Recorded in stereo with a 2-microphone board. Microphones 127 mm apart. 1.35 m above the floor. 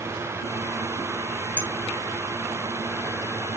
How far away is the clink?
About 3.5 m.